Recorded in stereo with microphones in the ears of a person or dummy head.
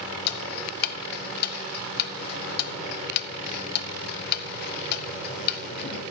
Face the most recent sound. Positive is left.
turn(degrees=55)  # may be behind; listen again after turning